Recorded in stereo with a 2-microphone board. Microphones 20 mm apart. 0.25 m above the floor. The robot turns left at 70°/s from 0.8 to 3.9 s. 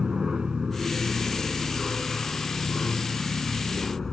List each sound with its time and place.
0.0 s an aircraft: 140° right; by 4.1 s 5° left